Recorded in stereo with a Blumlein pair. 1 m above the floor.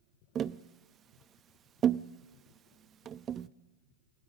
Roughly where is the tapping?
Ahead right.